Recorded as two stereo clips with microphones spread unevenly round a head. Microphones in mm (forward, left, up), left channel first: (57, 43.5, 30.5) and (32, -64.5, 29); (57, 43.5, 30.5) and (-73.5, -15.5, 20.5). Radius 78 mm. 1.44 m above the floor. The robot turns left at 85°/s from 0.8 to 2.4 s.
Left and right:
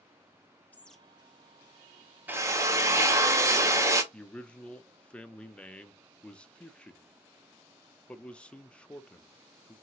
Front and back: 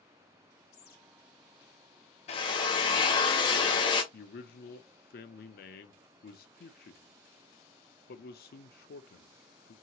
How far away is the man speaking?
About 0.5 m.